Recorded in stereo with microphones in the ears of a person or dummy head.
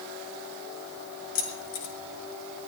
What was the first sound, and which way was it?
Keys jangling, 75° left (ahead or behind).